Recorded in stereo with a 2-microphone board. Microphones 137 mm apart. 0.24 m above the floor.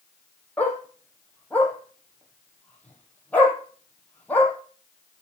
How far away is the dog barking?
About 4 m.